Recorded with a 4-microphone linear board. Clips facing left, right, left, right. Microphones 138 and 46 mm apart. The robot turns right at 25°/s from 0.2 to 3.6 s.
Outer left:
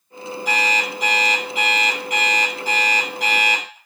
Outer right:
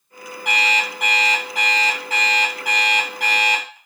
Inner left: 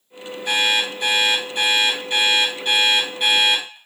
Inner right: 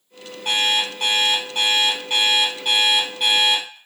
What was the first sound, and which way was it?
An alarm clock, 70° right.